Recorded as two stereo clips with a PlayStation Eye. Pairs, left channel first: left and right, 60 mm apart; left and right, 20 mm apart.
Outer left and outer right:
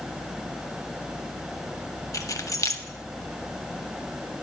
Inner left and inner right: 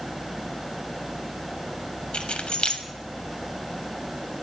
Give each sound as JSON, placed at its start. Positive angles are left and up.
{"t": 2.1, "sound": "keys jangling", "side_deg": 60, "distance_m": 0.6}